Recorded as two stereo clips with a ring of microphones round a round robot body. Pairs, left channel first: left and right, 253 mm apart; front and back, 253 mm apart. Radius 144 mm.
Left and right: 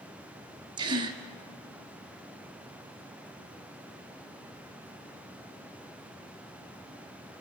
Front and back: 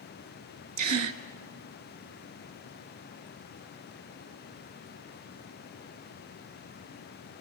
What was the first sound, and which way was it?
A gasp, 165° right.